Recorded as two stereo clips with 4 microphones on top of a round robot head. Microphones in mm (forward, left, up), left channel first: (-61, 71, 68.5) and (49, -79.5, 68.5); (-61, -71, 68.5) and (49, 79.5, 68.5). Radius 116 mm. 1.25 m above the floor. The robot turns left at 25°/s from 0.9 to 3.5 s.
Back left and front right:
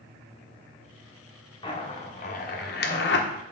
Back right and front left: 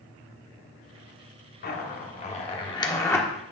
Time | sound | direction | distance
1.6 | a zipper | 165° right | 1.2 m